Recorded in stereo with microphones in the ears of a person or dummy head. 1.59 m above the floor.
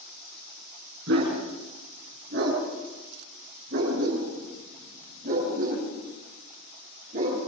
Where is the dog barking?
60° right (ahead or behind), 7.5 m; by 7.4 s 40° right (ahead or behind), 10 m.